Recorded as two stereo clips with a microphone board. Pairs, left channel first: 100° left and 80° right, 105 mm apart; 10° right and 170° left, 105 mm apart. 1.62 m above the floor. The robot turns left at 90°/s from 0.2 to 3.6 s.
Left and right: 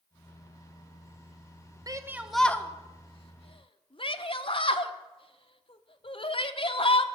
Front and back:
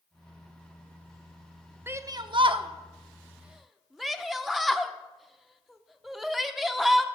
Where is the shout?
125° right, 0.9 m; by 7.0 s 80° left, 0.9 m.